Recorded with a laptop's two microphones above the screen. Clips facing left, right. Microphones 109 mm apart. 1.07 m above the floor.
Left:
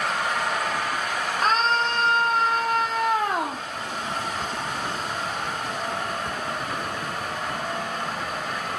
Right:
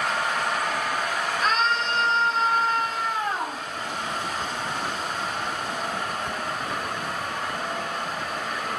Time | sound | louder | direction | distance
1.4 | a scream | left 3 dB | 35° left (ahead or behind) | 0.9 m